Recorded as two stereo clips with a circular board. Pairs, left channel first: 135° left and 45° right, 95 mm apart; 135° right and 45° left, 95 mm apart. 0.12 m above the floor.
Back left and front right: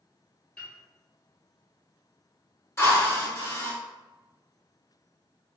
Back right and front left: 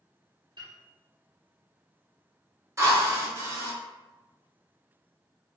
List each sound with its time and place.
0.6 s a piano: 55° left, 1.1 m
2.8 s a drill: 85° left, 0.8 m